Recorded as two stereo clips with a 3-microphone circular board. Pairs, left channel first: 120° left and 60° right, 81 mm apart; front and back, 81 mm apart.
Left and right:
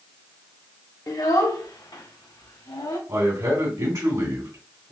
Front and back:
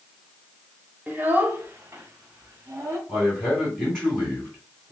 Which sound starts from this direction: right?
A man speaking, at 3.1 s.